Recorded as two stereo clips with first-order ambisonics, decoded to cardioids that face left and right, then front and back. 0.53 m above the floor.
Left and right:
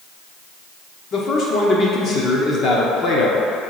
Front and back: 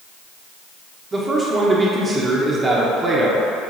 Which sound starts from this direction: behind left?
A man speaking, at 1.1 s.